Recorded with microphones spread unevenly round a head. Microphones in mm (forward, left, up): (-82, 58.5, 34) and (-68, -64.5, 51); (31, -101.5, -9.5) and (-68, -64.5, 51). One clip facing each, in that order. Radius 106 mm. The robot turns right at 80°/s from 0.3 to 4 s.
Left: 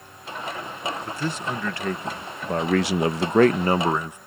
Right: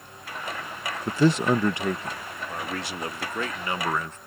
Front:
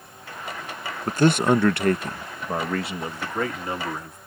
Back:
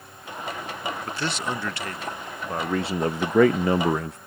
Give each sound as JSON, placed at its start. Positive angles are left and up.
{"t": 1.1, "sound": "a man speaking", "azimuth_deg": -60}